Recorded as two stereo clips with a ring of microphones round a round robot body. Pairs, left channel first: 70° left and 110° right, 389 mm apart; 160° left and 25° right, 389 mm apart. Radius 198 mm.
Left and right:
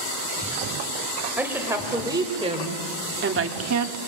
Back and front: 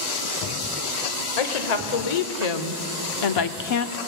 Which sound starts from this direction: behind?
A woman speaking, at 1.4 s.